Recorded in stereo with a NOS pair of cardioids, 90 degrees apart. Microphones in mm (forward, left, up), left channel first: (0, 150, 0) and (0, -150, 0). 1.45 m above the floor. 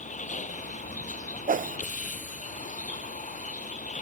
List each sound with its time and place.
0.0 s a vehicle: 25° left
1.5 s a whoosh: 25° right